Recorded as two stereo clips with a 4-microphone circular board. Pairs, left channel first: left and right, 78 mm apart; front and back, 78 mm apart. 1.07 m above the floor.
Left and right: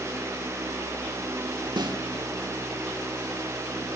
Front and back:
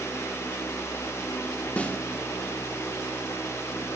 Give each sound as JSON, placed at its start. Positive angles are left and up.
{"t": 1.8, "sound": "a snare drum", "azimuth_deg": -70, "distance_m": 1.5}